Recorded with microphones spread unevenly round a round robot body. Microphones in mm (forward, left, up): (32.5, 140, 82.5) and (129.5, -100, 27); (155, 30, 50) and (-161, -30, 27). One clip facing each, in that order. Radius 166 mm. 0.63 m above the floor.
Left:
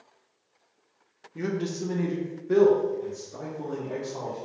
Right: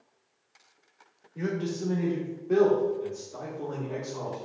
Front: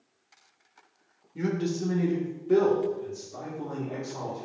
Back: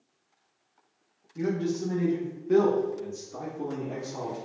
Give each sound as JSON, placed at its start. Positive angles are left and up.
{"t": 1.4, "sound": "a man speaking", "azimuth_deg": 50, "distance_m": 1.2}